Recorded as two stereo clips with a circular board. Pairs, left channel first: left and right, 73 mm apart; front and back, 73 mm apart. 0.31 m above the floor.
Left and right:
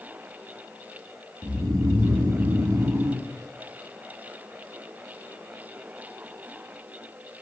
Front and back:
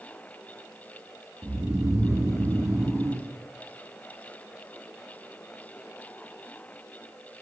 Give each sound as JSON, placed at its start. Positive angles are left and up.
{"t": 1.4, "sound": "snoring", "azimuth_deg": -130, "distance_m": 0.8}